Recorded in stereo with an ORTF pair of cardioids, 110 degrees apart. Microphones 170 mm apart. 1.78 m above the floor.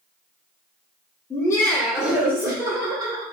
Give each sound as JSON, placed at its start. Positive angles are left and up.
{"t": 1.3, "sound": "laughter", "azimuth_deg": 25, "distance_m": 0.8}